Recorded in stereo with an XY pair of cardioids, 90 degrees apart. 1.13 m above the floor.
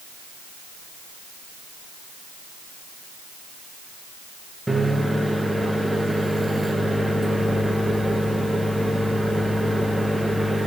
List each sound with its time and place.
4.7 s a microwave: 5° right, 0.6 m